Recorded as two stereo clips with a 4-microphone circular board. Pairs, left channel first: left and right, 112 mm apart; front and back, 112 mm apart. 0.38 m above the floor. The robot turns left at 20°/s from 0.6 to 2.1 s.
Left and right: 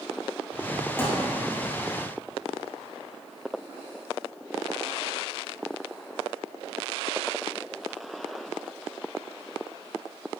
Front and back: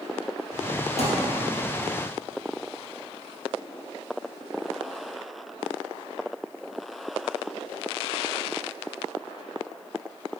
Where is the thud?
20° left, 2.5 m; by 1.3 s 15° left, 2.5 m.